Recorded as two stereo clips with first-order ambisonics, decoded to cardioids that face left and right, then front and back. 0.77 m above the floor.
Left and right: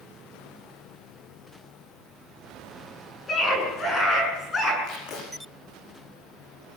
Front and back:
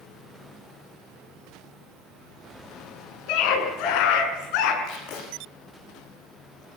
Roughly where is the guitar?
I don't hear a guitar.